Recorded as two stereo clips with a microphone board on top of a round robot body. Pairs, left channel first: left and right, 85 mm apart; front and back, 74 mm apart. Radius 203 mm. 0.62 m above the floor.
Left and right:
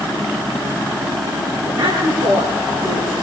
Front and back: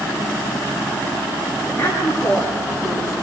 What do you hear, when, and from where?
1.6 s a woman speaking: 65° right, 8.5 m